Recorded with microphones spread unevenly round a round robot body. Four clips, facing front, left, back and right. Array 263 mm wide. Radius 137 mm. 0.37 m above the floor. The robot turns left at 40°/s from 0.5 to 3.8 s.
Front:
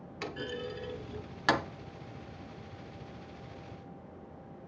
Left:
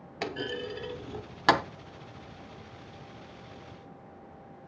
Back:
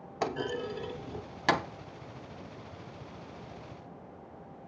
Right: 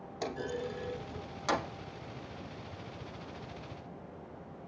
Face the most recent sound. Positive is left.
turn(degrees=35)